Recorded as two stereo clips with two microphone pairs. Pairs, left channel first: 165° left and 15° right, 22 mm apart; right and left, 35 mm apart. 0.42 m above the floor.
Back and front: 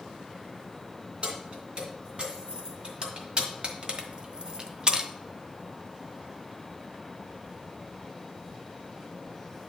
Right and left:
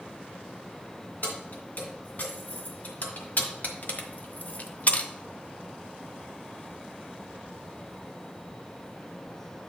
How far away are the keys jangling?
About 2.5 m.